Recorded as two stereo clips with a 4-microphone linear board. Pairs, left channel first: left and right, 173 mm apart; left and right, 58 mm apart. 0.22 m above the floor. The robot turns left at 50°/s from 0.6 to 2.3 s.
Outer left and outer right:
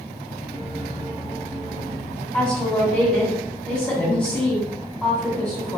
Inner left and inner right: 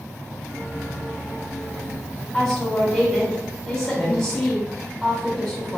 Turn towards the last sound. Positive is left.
turn(degrees=5)  # may be behind; listen again after turning